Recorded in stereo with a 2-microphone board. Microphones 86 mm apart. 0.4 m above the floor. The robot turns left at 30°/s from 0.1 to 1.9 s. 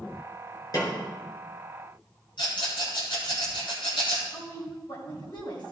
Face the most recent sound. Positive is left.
turn(degrees=70)  # may be behind; listen again after turning